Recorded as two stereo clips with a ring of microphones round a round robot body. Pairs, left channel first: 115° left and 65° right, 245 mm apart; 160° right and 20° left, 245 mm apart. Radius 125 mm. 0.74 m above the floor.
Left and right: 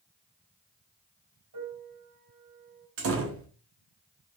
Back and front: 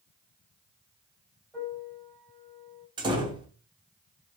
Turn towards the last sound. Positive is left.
turn(degrees=-45)